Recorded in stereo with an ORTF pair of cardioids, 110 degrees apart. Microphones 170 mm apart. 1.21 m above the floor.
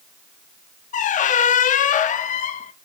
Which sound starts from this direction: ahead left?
A squeak, at 0.9 s.